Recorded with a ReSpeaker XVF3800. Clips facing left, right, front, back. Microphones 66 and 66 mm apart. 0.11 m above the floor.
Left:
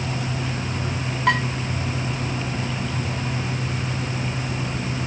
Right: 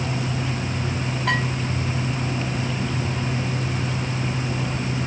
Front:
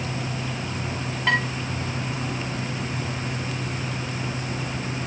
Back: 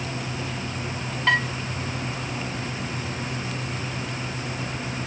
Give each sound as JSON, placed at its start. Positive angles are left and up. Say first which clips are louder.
{"t": 1.3, "sound": "dishes clattering", "louder": "left 4 dB, back 1 dB", "azimuth_deg": 80, "distance_m": 6.5}